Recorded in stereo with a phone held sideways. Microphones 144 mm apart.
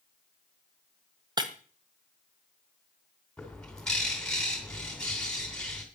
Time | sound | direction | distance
1.4 | breaking glass | 30° right (ahead or behind) | 1.5 m
3.4 | a bird | 5° left (ahead or behind) | 3.5 m